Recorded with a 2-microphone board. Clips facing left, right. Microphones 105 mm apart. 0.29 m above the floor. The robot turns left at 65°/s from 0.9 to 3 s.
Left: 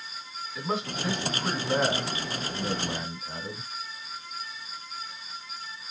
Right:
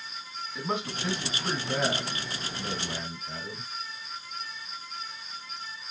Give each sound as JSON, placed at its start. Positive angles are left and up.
{"t": 0.6, "sound": "a man speaking", "azimuth_deg": 180, "distance_m": 1.8}